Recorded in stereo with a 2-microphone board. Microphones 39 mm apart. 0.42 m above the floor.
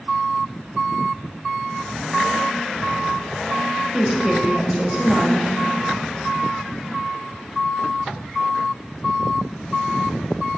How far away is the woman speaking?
About 2 m.